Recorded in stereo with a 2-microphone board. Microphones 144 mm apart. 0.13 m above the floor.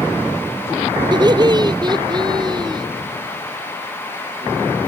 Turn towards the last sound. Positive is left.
turn(degrees=-30)  # may be behind; listen again after turning